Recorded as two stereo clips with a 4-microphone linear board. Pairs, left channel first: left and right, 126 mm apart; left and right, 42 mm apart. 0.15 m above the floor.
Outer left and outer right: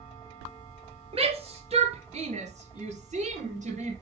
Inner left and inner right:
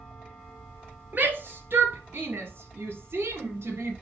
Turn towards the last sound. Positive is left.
turn(degrees=-70)  # may be behind; listen again after turning